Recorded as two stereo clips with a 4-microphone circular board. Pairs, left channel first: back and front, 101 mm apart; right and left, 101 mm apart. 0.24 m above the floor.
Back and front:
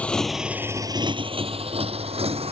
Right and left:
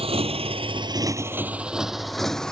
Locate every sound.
0.0 s a motorcycle: 105° left; by 2.5 s 5° right